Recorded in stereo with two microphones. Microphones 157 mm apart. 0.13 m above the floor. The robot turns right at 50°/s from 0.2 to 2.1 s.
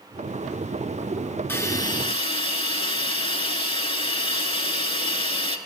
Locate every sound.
1.5 s a hiss: 20° left, 0.6 m; by 5.6 s 50° left, 0.6 m